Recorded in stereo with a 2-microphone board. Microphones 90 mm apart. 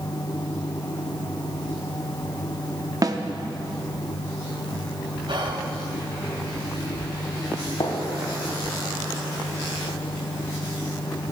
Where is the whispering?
60° right (ahead or behind), 1.4 m.